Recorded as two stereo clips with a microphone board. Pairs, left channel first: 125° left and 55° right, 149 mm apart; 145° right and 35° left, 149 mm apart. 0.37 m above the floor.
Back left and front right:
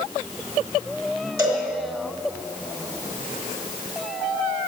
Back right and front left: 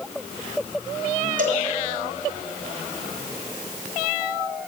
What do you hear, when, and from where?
1.4 s a cowbell: 15° left, 3.5 m